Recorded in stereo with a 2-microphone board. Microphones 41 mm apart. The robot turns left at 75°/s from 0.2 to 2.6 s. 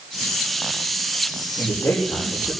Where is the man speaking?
110° left, 8.5 m; by 2.5 s 40° left, 8.5 m.